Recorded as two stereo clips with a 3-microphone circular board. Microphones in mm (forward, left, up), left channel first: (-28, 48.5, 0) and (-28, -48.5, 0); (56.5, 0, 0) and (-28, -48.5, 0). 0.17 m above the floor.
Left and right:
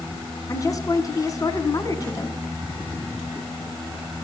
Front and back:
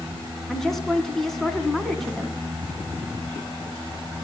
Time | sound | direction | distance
0.5 | a woman speaking | 115° left | 1.6 m